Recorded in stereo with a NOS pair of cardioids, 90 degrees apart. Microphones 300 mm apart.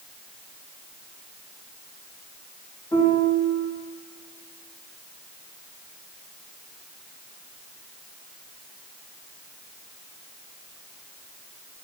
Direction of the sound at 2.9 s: 10° left.